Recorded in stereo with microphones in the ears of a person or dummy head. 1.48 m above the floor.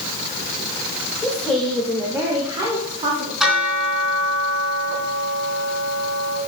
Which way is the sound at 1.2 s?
10° left (ahead or behind).